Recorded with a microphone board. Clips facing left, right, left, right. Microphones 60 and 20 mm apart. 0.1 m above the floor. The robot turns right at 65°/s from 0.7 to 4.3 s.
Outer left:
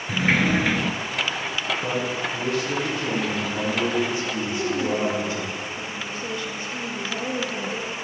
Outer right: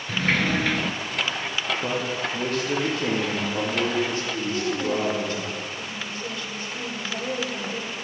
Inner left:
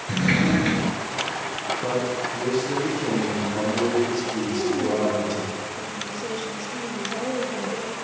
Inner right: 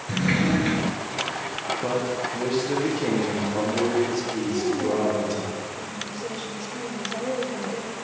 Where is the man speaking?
140° right, 4 m; by 5.4 s 20° left, 4 m.